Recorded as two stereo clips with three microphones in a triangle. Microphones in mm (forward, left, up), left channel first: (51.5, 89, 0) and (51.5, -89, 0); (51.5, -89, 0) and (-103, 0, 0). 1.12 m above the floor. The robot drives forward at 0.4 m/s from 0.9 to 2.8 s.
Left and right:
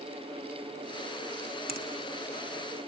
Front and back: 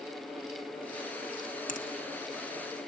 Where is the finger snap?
65° right, 1.3 m; by 1.9 s 70° right, 1.2 m.